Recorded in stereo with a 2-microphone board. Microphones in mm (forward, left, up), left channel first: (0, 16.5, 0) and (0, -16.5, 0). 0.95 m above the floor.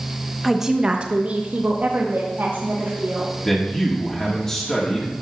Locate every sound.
0.4 s a woman speaking: 5° right (ahead or behind), 1.0 m; by 3.3 s 75° right (ahead or behind), 3 m
3.4 s a man speaking: 15° left (ahead or behind), 2 m